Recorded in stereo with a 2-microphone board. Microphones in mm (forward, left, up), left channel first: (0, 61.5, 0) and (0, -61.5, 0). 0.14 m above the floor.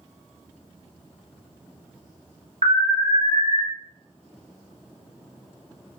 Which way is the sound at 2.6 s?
60° right (ahead or behind).